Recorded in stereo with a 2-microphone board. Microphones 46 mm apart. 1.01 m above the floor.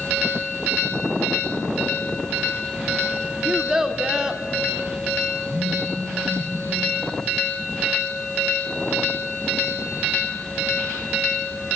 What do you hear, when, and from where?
3.5 s a child speaking: 15° right (ahead or behind), 1.4 m
5.5 s a phone buzzing: 65° right (ahead or behind), 3 m